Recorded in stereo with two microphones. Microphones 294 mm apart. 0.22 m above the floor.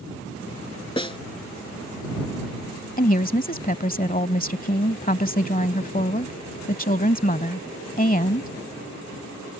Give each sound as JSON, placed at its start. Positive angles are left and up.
{"t": 1.0, "sound": "a snare drum", "side_deg": 20}
{"t": 3.0, "sound": "a woman speaking", "side_deg": 30}